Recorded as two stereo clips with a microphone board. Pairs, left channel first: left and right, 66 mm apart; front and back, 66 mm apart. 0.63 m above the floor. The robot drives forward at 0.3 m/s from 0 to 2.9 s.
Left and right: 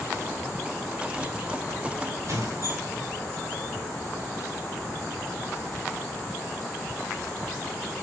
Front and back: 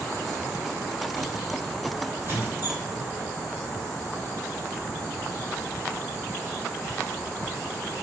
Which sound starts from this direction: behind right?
A squeak, at 2.2 s.